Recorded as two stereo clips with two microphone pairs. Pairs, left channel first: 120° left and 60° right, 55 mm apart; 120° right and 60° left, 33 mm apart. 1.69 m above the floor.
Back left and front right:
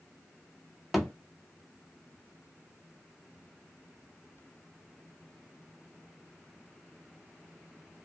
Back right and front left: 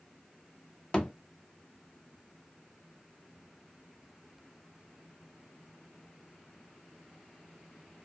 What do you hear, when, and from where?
0.9 s a thud: 140° right, 1.1 m